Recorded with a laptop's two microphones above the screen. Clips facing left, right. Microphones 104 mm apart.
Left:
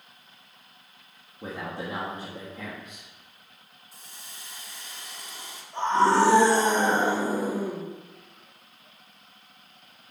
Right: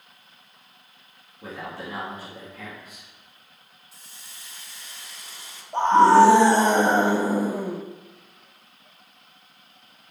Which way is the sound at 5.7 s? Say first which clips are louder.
Right 7 dB; 55° right (ahead or behind).